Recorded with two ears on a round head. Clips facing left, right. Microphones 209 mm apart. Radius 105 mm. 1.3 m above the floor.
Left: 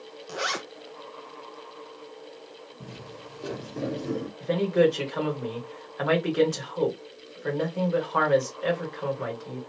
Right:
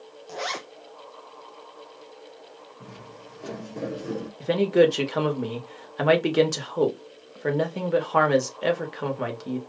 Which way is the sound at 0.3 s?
15° left (ahead or behind).